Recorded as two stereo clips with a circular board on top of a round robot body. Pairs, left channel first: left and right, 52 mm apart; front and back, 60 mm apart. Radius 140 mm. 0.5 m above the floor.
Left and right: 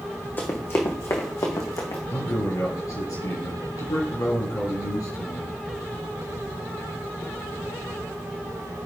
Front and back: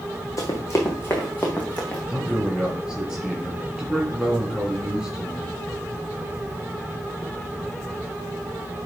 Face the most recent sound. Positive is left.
turn(degrees=100)